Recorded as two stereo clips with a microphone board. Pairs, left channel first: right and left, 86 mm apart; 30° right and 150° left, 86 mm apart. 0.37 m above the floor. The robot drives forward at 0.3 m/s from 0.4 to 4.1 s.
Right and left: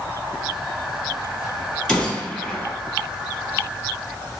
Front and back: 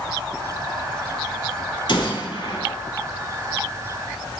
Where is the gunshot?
5° right, 1.3 m.